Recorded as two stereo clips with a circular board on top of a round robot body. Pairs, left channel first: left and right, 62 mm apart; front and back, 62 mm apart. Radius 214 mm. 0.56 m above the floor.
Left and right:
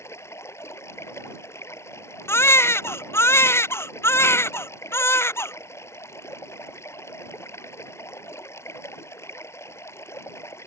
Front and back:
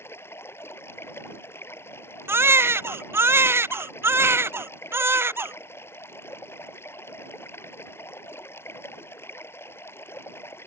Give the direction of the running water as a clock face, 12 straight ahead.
10 o'clock.